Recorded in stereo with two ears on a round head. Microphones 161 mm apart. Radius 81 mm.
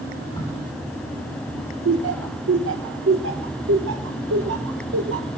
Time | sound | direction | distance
0.4 | a crack | 25° left (ahead or behind) | 7 m
1.9 | laughter | 75° right (ahead or behind) | 1.0 m